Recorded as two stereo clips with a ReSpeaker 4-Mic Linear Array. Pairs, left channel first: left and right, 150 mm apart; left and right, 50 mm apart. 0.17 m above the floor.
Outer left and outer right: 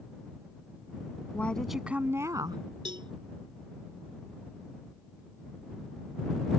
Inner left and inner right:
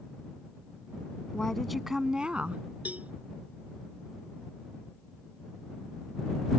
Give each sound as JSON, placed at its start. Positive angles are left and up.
{"t": 1.3, "sound": "a woman speaking", "side_deg": 10}
{"t": 2.9, "sound": "a cowbell", "side_deg": -35}